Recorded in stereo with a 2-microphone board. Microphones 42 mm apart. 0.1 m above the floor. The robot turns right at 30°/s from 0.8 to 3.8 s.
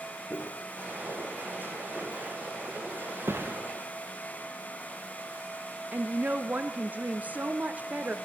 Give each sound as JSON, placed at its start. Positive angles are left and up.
{"t": 0.3, "sound": "footsteps", "side_deg": 80, "distance_m": 3.0}
{"t": 3.3, "sound": "a thud", "side_deg": -75, "distance_m": 3.0}
{"t": 5.9, "sound": "a woman speaking", "side_deg": -40, "distance_m": 1.4}